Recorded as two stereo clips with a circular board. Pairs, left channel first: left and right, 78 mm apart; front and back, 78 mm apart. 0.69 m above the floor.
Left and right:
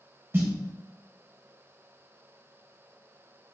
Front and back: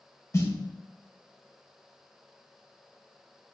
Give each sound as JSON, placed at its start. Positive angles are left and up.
{"t": 0.3, "sound": "a snare drum", "azimuth_deg": -40, "distance_m": 0.6}